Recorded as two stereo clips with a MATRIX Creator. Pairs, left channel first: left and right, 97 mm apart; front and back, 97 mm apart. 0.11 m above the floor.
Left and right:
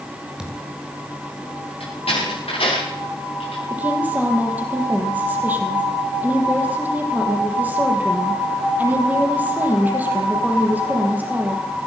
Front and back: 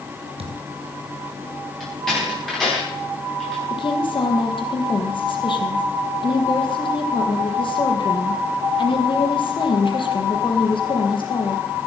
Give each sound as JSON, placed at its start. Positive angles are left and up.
{"t": 0.4, "sound": "a thud", "azimuth_deg": -175, "distance_m": 3.0}
{"t": 1.8, "sound": "a door slam", "azimuth_deg": 85, "distance_m": 10.0}
{"t": 3.7, "sound": "a woman speaking", "azimuth_deg": -20, "distance_m": 3.5}